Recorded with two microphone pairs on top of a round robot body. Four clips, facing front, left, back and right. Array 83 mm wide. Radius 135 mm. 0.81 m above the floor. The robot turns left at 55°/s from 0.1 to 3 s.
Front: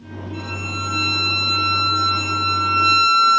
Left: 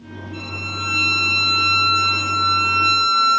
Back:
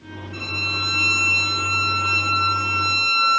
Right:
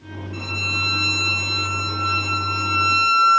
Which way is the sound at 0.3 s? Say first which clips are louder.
Right 2 dB, even; 155° right.